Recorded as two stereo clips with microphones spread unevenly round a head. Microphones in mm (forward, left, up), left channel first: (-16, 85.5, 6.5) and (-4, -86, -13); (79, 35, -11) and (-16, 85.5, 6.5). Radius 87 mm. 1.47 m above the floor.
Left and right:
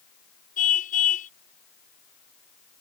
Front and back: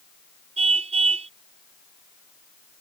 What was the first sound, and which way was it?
A car horn, 140° left.